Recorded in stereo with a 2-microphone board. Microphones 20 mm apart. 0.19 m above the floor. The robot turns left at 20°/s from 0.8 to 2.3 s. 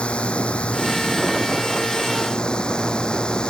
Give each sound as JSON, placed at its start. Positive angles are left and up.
{"t": 0.0, "sound": "a drone", "side_deg": 80}